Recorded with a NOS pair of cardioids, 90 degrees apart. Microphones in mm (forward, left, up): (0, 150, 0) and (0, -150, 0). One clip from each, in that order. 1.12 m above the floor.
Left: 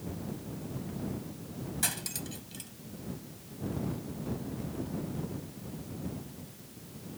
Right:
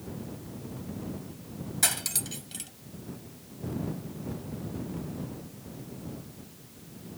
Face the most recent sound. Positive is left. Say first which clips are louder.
# right 6 dB
turn(degrees=-40)